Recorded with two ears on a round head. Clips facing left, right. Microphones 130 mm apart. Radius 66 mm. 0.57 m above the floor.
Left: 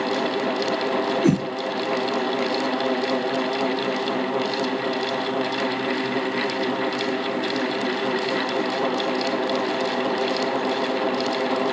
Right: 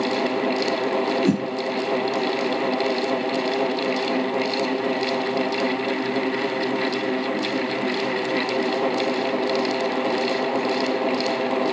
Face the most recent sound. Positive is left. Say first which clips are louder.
# left 4 dB
turn(degrees=15)  # may be behind; listen again after turning